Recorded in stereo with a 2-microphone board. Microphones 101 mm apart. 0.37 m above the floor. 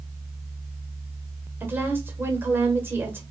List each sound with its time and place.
1.6 s a woman speaking: 20° right (ahead or behind), 1.2 m